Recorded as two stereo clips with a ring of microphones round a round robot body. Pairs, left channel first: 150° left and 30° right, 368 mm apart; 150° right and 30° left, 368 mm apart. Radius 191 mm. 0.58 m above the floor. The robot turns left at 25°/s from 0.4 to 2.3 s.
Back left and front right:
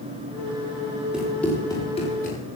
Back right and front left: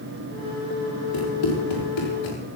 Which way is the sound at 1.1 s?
120° right.